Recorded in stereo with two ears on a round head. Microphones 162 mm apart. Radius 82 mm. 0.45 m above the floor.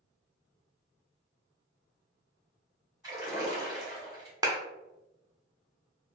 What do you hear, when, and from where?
3.0 s a splash: 20° right (ahead or behind), 1.4 m
4.4 s a clap: 20° right (ahead or behind), 0.6 m